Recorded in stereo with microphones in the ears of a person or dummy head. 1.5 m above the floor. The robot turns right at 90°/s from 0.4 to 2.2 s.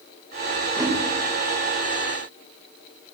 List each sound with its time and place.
0.8 s a whoosh: 10° right (ahead or behind), 3.5 m; by 1.0 s 35° right (ahead or behind), 3.5 m